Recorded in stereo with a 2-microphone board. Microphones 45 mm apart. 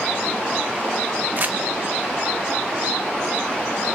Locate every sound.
1.4 s crumpling: 40° right (ahead or behind), 1.5 m